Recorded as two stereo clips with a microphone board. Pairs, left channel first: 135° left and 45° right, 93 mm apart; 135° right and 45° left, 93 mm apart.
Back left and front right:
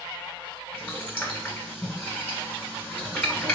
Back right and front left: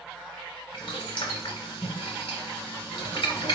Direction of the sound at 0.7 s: 155° right.